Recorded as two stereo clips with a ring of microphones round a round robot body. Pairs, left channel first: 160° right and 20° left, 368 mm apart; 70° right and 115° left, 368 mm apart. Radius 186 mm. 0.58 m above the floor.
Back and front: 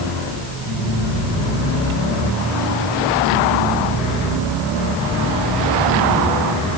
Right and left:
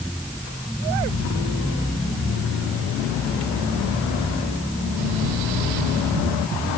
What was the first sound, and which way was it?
Only background noise.